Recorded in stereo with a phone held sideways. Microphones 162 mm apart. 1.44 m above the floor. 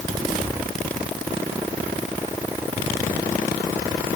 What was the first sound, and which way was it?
Only background noise.